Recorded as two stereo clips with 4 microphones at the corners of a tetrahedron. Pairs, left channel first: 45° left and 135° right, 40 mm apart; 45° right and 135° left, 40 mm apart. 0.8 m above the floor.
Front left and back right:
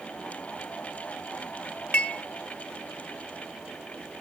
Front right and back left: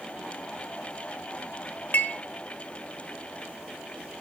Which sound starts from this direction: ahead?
Dishes clattering, at 1.9 s.